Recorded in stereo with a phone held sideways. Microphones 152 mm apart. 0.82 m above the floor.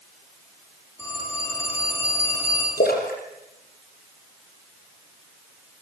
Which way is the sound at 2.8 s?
80° left.